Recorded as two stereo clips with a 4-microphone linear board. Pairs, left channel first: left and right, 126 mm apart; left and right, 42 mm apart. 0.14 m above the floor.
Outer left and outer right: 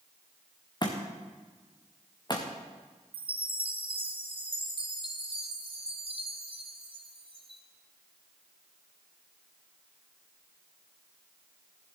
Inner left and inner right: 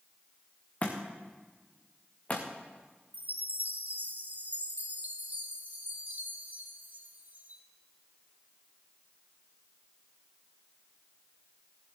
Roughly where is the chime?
Right.